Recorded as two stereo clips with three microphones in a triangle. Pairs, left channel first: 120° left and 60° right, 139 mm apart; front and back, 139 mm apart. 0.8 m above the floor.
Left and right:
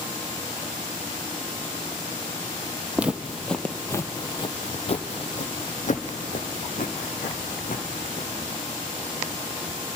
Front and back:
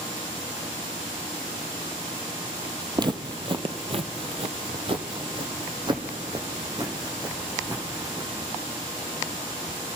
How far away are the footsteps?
About 1.1 m.